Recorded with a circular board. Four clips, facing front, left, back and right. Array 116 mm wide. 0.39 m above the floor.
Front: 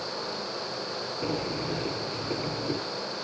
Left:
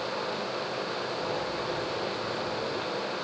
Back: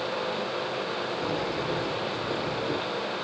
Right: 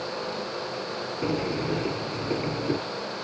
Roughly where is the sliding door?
Right.